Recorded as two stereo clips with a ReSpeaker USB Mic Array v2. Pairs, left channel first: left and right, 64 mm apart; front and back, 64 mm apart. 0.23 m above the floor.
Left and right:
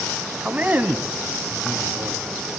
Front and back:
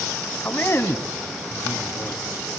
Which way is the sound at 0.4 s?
35° right.